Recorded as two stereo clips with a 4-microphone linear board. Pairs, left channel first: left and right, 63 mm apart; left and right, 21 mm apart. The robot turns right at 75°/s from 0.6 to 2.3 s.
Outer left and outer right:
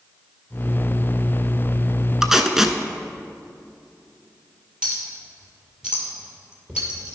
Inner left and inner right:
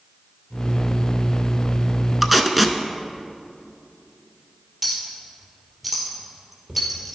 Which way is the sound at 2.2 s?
10° right (ahead or behind).